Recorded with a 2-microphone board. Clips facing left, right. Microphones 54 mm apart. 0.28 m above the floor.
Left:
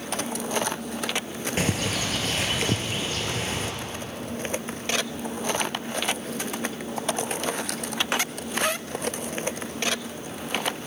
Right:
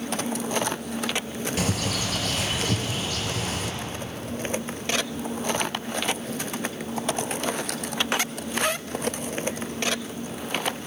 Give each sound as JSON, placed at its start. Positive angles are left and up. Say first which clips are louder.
{"t": 1.6, "sound": "a bird", "louder": "left 2 dB", "side_deg": 35, "distance_m": 4.0}